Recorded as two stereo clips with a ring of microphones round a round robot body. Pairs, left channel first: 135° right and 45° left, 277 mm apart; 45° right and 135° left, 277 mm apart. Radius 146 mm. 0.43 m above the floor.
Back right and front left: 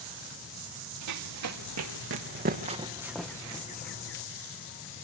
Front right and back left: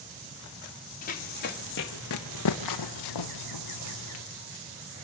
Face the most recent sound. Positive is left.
turn(degrees=-85)